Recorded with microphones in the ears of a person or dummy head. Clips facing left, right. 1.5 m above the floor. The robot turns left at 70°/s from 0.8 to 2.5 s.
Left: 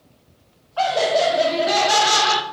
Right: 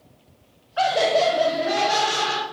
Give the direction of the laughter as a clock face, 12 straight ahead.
6 o'clock.